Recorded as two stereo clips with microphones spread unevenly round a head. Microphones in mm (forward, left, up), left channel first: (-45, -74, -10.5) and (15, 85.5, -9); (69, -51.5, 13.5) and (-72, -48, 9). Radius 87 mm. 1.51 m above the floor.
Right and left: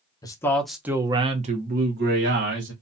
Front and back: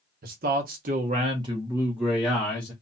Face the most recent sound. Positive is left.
turn(degrees=80)